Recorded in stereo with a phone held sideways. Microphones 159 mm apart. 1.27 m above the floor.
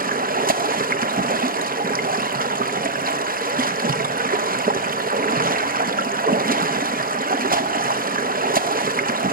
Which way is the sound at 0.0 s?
60° right (ahead or behind).